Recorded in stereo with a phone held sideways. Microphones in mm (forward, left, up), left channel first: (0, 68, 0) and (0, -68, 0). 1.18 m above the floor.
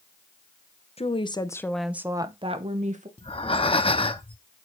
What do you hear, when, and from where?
1.0 s a woman speaking: 45° left (ahead or behind), 0.9 m; by 3.1 s 55° right (ahead or behind), 1.1 m
3.2 s breathing: 40° left (ahead or behind), 0.7 m